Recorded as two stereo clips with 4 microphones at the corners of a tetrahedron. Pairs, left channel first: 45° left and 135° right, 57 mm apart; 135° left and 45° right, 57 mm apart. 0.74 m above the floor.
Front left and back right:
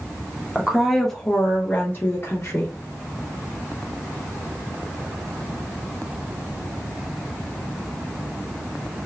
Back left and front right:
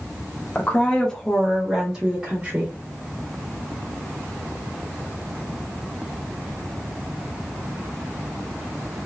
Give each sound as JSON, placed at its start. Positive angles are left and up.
{"t": 0.6, "sound": "a woman speaking", "azimuth_deg": 160, "distance_m": 0.8}